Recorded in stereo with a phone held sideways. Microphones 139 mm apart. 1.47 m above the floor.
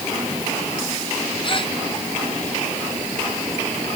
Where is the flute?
I don't hear a flute.